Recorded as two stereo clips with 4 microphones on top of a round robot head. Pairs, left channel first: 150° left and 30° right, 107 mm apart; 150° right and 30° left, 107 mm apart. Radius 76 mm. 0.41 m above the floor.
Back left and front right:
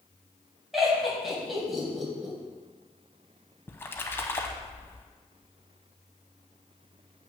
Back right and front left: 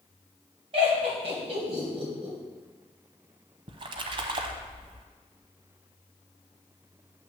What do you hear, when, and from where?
0.7 s laughter: 55° left, 3 m
3.7 s a splash: 75° left, 0.6 m